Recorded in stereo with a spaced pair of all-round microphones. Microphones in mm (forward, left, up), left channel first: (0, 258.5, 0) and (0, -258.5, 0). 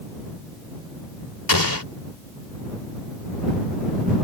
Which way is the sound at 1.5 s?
40° left (ahead or behind).